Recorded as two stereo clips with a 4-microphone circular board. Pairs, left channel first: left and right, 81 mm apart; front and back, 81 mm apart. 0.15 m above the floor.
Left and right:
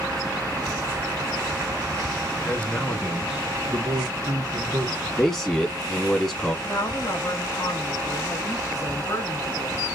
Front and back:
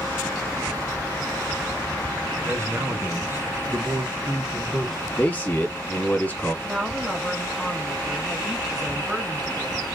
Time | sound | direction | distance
2.5 | a man speaking | 145° left | 1.3 m
5.2 | a man speaking | 15° left | 1.3 m
6.7 | a woman speaking | 100° left | 1.6 m